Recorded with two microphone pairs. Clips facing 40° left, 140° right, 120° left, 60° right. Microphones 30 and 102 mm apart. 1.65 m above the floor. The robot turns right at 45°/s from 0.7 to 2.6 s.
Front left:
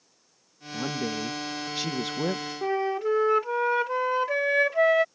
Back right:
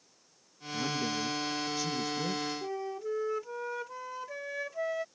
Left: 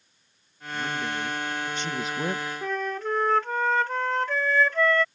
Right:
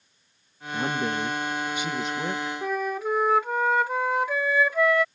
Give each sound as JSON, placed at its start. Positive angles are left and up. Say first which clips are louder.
{"t": 0.7, "sound": "a woman speaking", "louder": "front left 2 dB, right 3 dB", "azimuth_deg": -25}
{"t": 2.6, "sound": "a flute", "louder": "front left 10 dB, right 2 dB", "azimuth_deg": 20}